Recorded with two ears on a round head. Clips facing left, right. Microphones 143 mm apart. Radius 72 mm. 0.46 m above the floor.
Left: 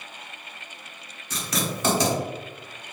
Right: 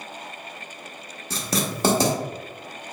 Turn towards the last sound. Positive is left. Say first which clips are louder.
# right 2 dB
turn(degrees=-30)  # may be behind; listen again after turning